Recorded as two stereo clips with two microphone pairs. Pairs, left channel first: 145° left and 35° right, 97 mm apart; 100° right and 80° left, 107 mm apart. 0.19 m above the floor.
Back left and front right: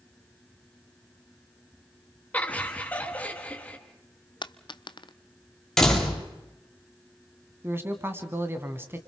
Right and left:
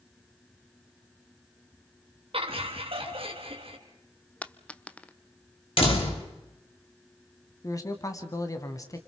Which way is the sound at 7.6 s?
75° right.